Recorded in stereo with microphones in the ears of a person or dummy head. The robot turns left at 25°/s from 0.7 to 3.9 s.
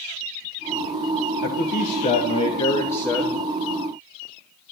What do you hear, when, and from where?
1.4 s a man speaking: 55° left, 0.9 m; by 3.4 s 5° left, 0.9 m